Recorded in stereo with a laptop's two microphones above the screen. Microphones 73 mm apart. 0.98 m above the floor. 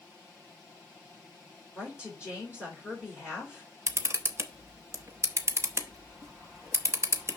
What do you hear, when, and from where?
1.8 s a woman speaking: 35° left (ahead or behind), 4 m
3.9 s a camera shutter: 35° right (ahead or behind), 0.8 m